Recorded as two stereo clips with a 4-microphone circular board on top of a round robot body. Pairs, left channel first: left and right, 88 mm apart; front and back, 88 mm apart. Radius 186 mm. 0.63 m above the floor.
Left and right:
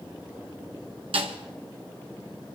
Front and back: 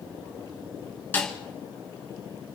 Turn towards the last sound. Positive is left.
turn(degrees=-70)